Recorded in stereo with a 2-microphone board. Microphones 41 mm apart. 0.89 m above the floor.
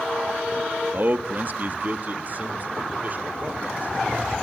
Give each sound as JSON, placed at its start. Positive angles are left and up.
{"t": 0.9, "sound": "a man speaking", "side_deg": -45, "distance_m": 1.4}